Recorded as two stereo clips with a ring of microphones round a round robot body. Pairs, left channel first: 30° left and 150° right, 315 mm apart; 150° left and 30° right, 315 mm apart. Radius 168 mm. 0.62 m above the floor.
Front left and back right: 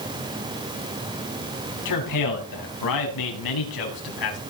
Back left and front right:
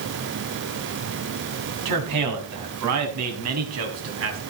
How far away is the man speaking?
About 5 m.